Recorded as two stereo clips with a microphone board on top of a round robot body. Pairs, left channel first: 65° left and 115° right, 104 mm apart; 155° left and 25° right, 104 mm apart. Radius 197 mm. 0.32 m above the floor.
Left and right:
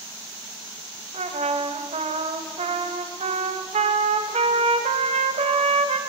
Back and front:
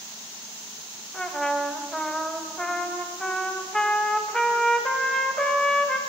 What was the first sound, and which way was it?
A trumpet, 120° right.